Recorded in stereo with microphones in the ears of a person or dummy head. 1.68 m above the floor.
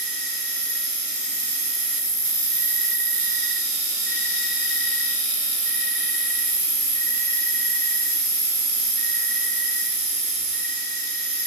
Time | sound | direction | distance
0.0 | an insect | 10° left (ahead or behind) | 1.9 m